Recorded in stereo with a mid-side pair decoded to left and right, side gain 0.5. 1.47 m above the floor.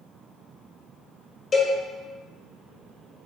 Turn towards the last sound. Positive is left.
turn(degrees=45)